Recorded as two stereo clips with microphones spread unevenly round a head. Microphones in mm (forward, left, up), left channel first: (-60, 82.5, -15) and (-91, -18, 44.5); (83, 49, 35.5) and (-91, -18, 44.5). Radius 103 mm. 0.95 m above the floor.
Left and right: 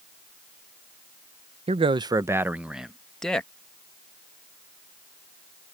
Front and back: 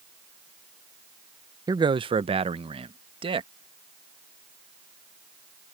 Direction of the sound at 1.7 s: 120° right.